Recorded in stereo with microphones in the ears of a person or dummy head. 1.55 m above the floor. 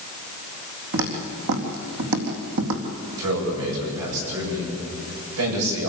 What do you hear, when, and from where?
0.9 s footsteps: 70° right (ahead or behind), 4.5 m; by 2.8 s 65° right (ahead or behind), 3.5 m
3.2 s a man speaking: 90° right, 9 m